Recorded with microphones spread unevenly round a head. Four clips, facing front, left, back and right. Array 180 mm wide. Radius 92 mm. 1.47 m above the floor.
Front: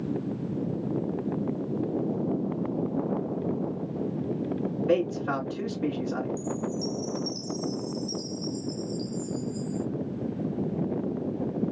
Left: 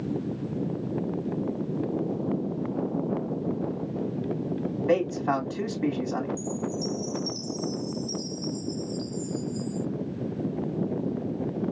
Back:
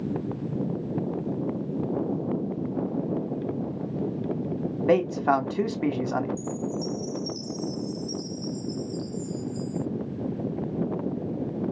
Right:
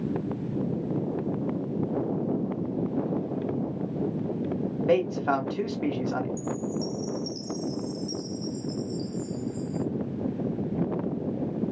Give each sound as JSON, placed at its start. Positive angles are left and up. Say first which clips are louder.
{"t": 4.9, "sound": "a man speaking", "louder": "right 1 dB, back 5 dB", "azimuth_deg": -170, "distance_m": 1.5}
{"t": 6.4, "sound": "a chime", "louder": "even, even", "azimuth_deg": -30, "distance_m": 1.0}